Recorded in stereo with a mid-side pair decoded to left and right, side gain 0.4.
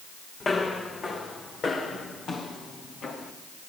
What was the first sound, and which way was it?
Footsteps, 45° left.